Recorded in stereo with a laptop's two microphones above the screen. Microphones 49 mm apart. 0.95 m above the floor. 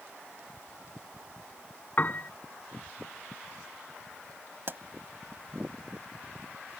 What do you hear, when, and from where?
2.0 s a piano: 40° left (ahead or behind)
4.7 s a pop: 50° right (ahead or behind)